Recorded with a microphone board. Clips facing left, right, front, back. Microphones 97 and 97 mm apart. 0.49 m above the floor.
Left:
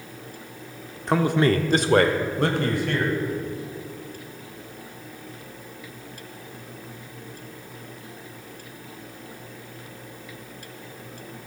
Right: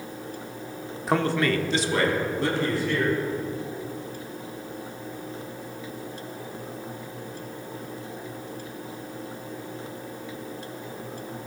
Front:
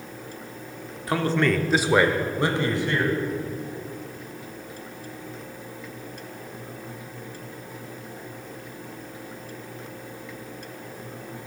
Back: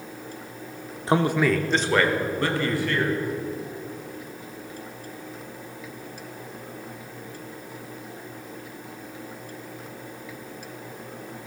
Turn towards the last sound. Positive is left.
turn(degrees=65)